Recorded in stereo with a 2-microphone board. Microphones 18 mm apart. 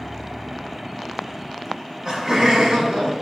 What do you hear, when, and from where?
1.7 s laughter: 30° right (ahead or behind), 4 m; by 3.1 s 50° right (ahead or behind), 4 m